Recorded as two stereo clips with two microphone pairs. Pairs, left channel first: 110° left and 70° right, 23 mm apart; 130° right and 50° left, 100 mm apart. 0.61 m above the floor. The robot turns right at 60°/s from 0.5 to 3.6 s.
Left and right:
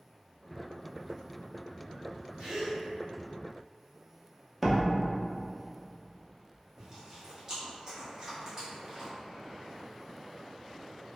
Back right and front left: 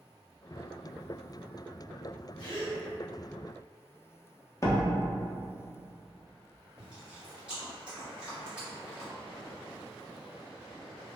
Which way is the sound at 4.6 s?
155° right.